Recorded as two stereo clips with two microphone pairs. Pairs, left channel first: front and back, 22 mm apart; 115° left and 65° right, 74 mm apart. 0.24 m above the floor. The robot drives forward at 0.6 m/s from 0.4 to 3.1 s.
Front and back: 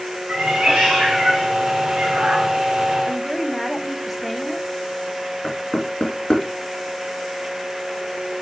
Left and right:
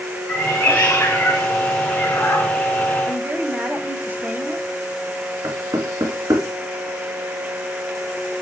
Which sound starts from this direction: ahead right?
Knocking, at 5.4 s.